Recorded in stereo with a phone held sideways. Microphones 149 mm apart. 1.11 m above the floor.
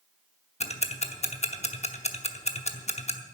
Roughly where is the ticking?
Left.